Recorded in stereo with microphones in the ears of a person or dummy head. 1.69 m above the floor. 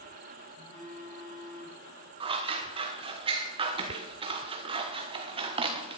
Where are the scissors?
25° right (ahead or behind), 0.9 m.